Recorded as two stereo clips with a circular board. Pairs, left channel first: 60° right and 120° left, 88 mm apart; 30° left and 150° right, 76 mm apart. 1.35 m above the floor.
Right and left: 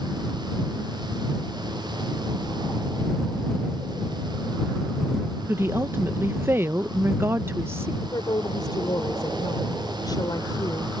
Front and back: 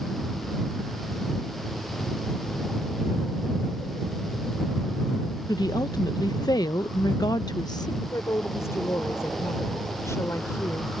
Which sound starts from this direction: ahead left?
A woman speaking, at 5.5 s.